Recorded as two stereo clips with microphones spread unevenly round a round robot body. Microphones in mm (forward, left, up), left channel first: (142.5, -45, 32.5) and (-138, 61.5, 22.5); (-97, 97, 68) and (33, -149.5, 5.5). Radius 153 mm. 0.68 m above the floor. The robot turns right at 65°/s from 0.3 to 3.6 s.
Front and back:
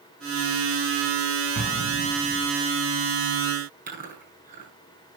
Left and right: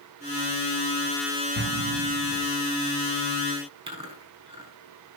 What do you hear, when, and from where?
1.6 s an explosion: 70° left, 4 m; by 2.5 s 130° left, 4 m
3.9 s chewing: 135° right, 9 m